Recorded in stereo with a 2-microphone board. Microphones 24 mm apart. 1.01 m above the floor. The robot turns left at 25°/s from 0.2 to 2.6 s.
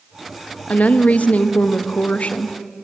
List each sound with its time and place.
0.7 s a woman speaking: 105° left, 1.1 m; by 2.6 s 60° left, 1.1 m